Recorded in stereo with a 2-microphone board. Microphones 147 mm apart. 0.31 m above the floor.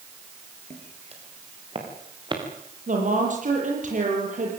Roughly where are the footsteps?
Right.